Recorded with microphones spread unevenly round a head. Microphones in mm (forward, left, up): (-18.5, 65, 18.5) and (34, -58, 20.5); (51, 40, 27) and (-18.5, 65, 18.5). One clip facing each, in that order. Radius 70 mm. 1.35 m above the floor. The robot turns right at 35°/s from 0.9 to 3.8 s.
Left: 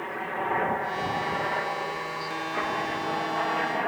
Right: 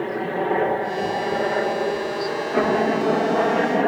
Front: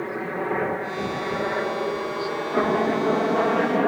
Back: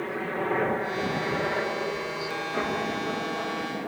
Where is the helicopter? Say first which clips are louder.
Right 8 dB, front 2 dB; 95° right; by 3.9 s 40° right.